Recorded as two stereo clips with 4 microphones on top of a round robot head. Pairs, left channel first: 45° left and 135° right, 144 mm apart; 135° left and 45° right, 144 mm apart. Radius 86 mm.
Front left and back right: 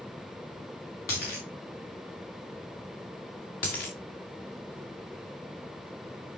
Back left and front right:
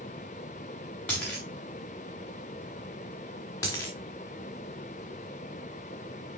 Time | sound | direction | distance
1.1 | a dropped coin | 55° left | 5 m
3.6 | a dropped coin | 65° left | 3 m